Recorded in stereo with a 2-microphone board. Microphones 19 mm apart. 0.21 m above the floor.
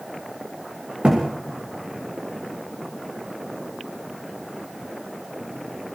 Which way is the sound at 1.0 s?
65° right (ahead or behind).